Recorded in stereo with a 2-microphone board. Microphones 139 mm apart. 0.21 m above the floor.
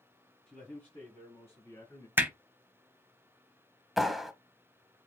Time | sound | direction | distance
0.5 | a man speaking | 5° left (ahead or behind) | 1.6 m
2.2 | hammering | 15° right (ahead or behind) | 0.7 m
4.0 | a clap | centre (ahead or behind) | 0.8 m